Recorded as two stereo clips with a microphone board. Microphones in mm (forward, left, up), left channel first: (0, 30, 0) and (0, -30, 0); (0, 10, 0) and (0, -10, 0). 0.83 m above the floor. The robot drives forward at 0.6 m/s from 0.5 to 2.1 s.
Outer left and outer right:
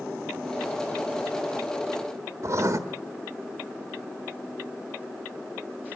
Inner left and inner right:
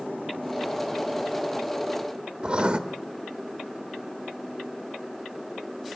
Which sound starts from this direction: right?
Writing, at 2.4 s.